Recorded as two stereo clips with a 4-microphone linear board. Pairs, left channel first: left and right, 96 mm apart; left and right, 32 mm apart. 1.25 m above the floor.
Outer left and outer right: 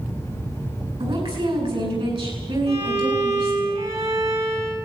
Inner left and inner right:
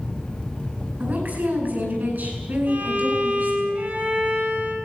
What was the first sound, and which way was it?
A woman speaking, 65° right (ahead or behind).